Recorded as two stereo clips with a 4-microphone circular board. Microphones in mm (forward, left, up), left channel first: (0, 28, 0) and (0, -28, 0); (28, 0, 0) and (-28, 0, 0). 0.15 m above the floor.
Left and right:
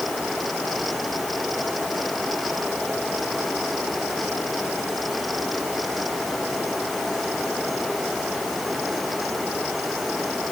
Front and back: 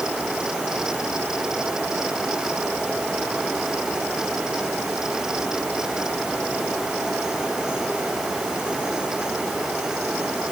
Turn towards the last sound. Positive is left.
No sound to turn to.